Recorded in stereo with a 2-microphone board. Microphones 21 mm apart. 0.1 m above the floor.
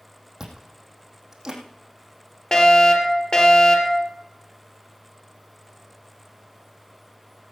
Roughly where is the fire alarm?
Left.